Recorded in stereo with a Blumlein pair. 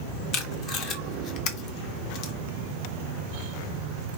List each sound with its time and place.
0.3 s tape being pulled: 35° left, 0.6 m